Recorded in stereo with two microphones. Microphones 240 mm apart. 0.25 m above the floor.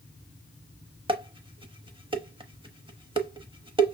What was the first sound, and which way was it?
Dishes clattering, 20° right (ahead or behind).